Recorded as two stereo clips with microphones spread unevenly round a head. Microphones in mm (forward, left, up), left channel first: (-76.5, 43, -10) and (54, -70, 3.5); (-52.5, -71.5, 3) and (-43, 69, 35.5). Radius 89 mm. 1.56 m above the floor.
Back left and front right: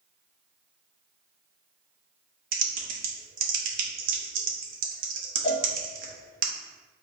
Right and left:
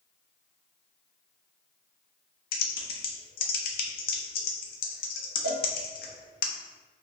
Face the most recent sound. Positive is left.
turn(degrees=85)